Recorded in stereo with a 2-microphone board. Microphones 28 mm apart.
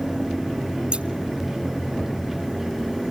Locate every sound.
0.9 s scissors: 40° right (ahead or behind), 0.7 m